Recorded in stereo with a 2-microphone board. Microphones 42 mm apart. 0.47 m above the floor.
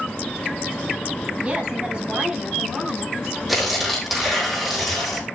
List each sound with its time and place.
1.4 s a woman speaking: 30° right (ahead or behind), 6.5 m
3.5 s tearing paper: 5° right (ahead or behind), 5.5 m